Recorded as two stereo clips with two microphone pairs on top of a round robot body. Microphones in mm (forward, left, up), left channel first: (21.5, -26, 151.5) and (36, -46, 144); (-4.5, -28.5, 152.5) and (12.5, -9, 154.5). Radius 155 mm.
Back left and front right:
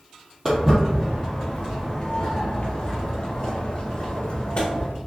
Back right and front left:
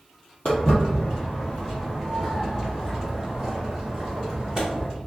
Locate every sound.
0.5 s footsteps: 120° right, 1.2 m; by 4.9 s 110° left, 2.5 m